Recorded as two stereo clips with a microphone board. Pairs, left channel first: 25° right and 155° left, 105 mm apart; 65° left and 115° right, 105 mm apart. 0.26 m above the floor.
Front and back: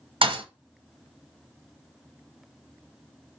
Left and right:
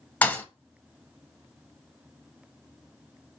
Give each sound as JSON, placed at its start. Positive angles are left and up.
{"t": 0.2, "sound": "a thud", "azimuth_deg": 140, "distance_m": 0.6}